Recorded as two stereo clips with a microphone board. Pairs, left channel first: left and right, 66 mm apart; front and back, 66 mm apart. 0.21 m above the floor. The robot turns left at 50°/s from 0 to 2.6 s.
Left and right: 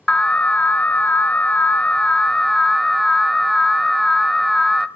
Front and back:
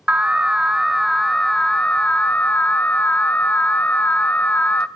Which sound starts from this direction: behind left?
An alarm, at 0.1 s.